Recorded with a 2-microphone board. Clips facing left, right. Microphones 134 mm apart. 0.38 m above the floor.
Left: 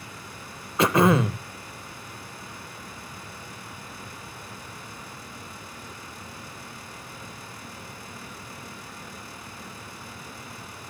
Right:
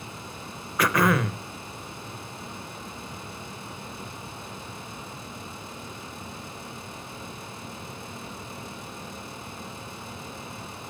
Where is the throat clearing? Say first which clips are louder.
Left 3 dB; 25° left (ahead or behind), 0.9 m.